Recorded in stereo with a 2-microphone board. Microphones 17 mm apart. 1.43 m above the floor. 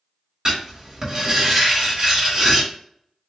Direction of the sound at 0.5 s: 35° right (ahead or behind).